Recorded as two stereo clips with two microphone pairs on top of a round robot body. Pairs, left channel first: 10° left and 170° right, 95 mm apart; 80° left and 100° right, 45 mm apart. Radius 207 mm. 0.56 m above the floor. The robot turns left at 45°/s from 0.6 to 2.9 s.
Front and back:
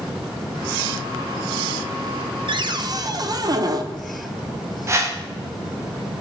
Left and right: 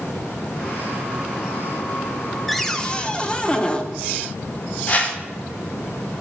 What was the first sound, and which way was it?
A cupboard door, 165° left.